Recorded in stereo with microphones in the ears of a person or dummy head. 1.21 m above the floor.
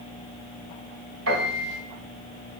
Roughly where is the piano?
Right.